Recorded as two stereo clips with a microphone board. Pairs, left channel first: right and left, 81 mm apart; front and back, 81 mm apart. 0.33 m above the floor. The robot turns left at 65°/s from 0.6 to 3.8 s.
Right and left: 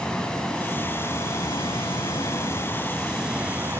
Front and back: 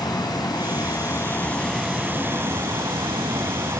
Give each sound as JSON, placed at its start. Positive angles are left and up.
{"t": 0.0, "sound": "running water", "azimuth_deg": -10, "distance_m": 1.7}